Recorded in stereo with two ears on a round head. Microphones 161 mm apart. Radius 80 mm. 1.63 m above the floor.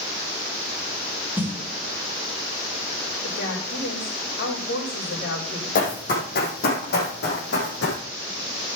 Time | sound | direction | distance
1.4 | a snare drum | 10° right (ahead or behind) | 1.9 m
3.2 | a woman speaking | 80° left | 5.5 m
5.8 | running footsteps | 50° left (ahead or behind) | 4.5 m